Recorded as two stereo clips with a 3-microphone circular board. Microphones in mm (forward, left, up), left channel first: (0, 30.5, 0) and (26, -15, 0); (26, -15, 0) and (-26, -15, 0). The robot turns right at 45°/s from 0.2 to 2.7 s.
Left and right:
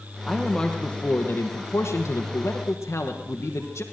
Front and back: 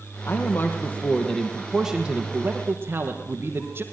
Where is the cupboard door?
No cupboard door in this recording.